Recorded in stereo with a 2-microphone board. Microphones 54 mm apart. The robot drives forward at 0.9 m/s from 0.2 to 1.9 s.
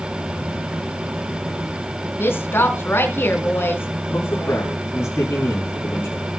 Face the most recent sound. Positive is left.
turn(degrees=55)  # may be behind; listen again after turning